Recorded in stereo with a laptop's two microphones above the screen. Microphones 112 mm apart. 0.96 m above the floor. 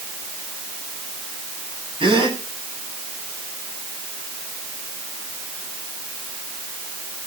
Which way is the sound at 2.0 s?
50° right (ahead or behind).